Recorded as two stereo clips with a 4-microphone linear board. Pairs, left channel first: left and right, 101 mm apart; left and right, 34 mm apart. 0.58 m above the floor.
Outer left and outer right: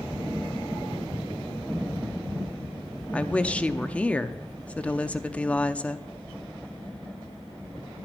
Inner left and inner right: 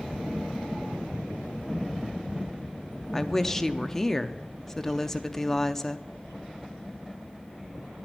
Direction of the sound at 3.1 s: 10° left (ahead or behind).